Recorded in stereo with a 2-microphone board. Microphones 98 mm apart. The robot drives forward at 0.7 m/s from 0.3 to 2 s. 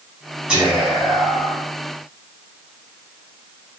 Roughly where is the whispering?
Centre.